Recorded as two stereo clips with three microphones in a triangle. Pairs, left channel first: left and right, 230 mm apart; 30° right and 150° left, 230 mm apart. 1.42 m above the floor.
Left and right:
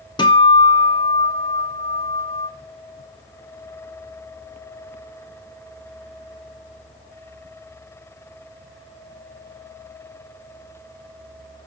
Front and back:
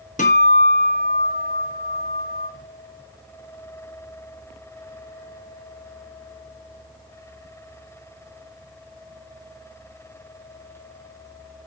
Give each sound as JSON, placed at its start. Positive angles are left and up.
{"t": 0.2, "sound": "a guitar", "azimuth_deg": 20, "distance_m": 0.6}